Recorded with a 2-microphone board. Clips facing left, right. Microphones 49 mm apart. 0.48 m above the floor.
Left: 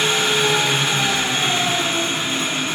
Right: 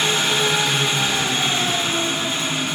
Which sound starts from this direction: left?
An engine running, at 0.0 s.